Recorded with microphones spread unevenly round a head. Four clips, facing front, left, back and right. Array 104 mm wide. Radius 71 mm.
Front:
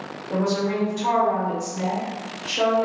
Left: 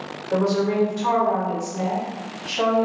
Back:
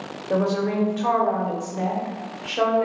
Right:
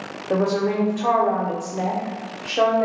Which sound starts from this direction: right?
A woman speaking, at 0.3 s.